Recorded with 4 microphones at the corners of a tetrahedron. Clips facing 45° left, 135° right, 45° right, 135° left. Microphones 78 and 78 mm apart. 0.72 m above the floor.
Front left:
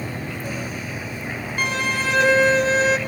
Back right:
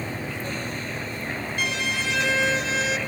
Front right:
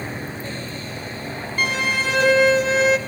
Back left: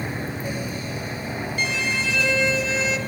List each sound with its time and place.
1.6 s a violin: 5° right, 0.7 m